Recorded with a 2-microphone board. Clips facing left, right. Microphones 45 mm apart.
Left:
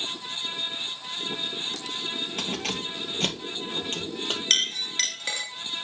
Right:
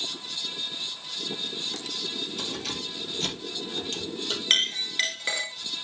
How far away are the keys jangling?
About 1.7 m.